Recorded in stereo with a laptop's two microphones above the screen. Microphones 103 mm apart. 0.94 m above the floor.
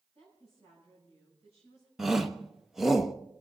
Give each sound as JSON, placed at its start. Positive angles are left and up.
{"t": 0.1, "sound": "a woman speaking", "side_deg": -85, "distance_m": 8.0}
{"t": 2.0, "sound": "a shout", "side_deg": -5, "distance_m": 0.8}